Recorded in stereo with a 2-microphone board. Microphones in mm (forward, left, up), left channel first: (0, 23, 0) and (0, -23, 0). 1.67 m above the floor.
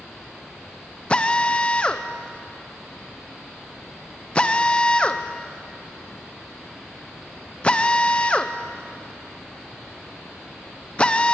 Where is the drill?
20° left (ahead or behind), 0.7 m.